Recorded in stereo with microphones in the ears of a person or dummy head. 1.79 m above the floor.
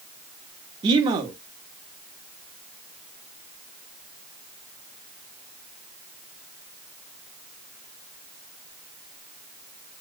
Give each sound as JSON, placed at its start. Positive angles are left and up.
{"t": 0.8, "sound": "a man speaking", "side_deg": -25, "distance_m": 0.7}